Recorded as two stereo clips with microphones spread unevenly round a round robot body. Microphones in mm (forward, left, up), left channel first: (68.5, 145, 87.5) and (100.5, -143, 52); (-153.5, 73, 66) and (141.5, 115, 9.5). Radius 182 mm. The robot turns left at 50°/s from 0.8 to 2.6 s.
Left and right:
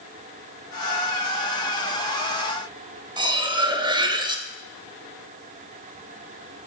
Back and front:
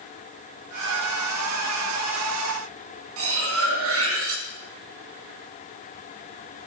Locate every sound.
3.2 s cutlery clinking: 15° right, 0.8 m